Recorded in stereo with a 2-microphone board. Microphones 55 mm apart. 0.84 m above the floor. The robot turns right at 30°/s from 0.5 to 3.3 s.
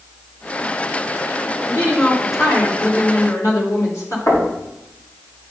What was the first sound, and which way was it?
A woman speaking, 60° left.